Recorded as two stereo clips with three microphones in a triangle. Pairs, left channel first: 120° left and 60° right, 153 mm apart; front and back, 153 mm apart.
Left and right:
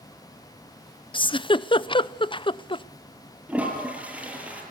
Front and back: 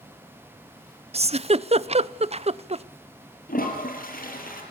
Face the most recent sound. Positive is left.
turn(degrees=20)